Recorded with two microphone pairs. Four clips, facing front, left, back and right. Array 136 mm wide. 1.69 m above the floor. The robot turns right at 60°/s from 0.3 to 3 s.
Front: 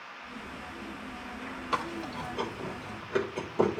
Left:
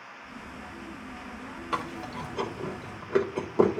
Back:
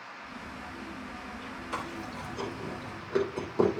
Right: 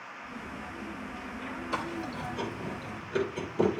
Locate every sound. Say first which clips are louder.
1.7 s chewing: left 2 dB, front 5 dB; 25° left, 3 m; by 3.8 s 100° left, 3 m